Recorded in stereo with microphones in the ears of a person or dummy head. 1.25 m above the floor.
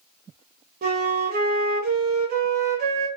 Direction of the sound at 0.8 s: 50° right (ahead or behind).